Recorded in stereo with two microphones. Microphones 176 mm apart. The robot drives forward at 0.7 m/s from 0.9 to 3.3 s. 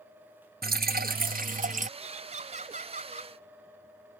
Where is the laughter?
40° right (ahead or behind); by 3.3 s 45° right (ahead or behind).